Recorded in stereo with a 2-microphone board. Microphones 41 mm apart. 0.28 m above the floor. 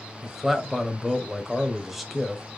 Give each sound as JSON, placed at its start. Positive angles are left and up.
{"t": 0.2, "sound": "a man speaking", "side_deg": -5, "distance_m": 1.0}